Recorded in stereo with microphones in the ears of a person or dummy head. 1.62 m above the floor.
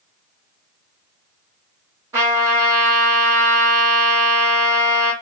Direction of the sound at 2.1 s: 15° right (ahead or behind).